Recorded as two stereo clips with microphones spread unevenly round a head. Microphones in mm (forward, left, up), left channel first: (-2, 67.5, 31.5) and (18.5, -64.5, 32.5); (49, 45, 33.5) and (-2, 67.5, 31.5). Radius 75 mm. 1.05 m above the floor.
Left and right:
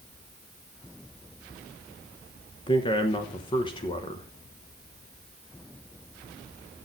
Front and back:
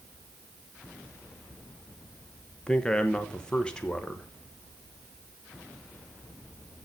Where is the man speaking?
50° left, 1.1 m.